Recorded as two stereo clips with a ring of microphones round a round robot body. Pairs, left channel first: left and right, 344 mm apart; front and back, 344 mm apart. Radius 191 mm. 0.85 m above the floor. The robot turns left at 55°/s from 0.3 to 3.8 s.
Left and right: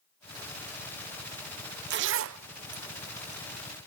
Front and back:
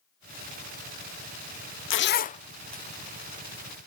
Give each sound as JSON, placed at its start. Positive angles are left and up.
{"t": 1.9, "sound": "a zipper", "azimuth_deg": -40, "distance_m": 0.5}